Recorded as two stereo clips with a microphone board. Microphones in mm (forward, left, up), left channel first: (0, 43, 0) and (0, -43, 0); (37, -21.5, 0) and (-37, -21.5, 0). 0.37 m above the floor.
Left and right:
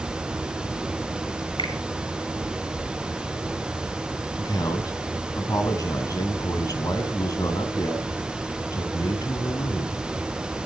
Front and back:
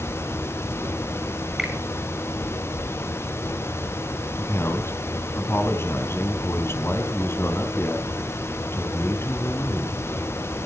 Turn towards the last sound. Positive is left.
turn(degrees=55)